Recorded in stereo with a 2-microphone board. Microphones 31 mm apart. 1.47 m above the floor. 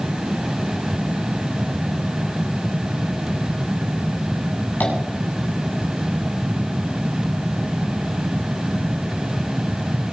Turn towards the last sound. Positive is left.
turn(degrees=75)  # may be behind; listen again after turning